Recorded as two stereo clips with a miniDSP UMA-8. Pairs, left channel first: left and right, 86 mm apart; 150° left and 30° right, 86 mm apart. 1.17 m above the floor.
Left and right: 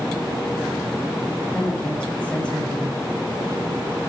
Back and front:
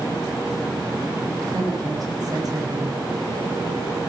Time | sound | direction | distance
1.5 | a woman speaking | 10° left | 5 m